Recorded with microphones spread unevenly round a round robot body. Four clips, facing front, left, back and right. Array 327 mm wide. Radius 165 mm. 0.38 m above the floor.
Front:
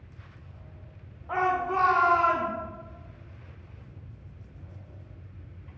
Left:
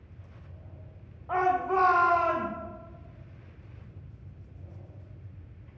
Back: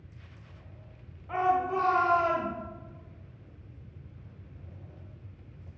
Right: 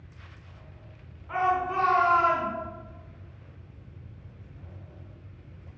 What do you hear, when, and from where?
1.3 s a shout: 75° left, 1.1 m; by 2.5 s 130° left, 1.7 m